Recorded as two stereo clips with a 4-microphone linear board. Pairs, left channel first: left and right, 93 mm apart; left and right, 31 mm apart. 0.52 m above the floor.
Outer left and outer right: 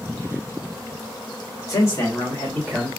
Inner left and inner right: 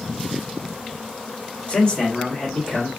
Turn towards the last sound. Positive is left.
turn(degrees=10)  # may be behind; listen again after turning